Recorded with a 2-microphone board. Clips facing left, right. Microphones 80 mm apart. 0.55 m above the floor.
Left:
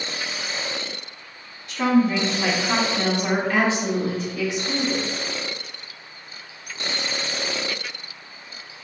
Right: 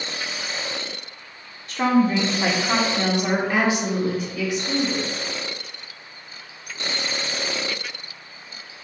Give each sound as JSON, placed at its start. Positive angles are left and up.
{"t": 1.7, "sound": "a woman speaking", "side_deg": -45, "distance_m": 0.9}